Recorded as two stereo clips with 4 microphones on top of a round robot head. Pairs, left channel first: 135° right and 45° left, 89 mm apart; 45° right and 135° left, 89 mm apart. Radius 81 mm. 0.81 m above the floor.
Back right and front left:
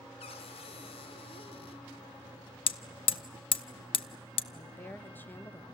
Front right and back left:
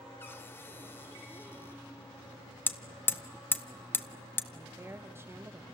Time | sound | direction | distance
0.2 | a cupboard door | 115° right | 0.7 m
2.7 | hammering | 115° right | 0.8 m
4.5 | a woman speaking | 175° left | 1.1 m